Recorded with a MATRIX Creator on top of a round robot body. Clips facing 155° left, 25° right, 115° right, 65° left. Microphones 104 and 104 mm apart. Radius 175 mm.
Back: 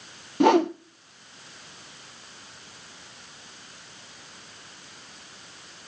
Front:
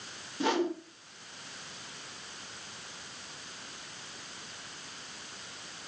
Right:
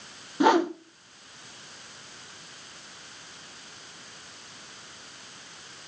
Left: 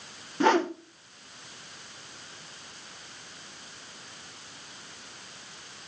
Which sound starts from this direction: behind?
A whoosh, at 0.4 s.